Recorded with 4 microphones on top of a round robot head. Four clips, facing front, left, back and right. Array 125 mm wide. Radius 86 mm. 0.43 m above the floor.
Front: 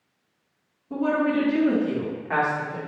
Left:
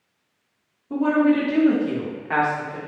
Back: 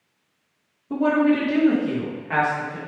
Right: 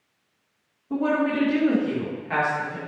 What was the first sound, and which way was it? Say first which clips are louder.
A woman speaking: left 5 dB, back 4 dB; 175° left.